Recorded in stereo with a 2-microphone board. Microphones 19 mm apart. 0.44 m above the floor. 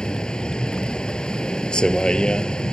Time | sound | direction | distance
0.0 | a vehicle | 60° left (ahead or behind) | ?